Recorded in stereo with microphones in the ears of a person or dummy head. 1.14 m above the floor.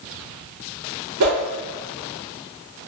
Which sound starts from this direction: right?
A whoosh, at 1.2 s.